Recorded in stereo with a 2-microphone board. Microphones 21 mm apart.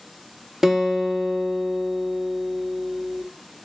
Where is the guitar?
20° right (ahead or behind), 1.0 m.